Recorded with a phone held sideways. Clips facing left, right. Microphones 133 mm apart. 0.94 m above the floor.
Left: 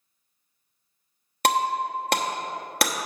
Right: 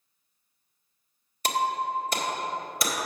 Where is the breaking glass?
70° left (ahead or behind), 1.0 m.